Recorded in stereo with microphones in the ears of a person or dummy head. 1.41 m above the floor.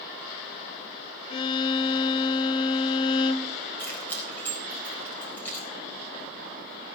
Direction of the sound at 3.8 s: 5° left (ahead or behind).